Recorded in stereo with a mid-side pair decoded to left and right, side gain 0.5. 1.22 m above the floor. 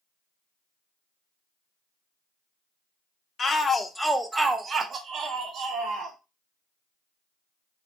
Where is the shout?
35° left, 0.8 m; by 6.2 s 70° right, 1.4 m.